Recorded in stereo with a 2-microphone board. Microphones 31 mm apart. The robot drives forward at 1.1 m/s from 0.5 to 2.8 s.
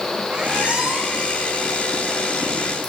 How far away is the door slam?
I don't hear a door slam.